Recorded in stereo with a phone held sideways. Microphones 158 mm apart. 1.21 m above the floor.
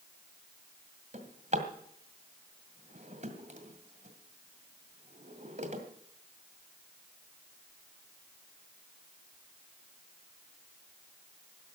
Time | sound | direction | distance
1.1 | a drawer | 50° right (ahead or behind) | 1.9 m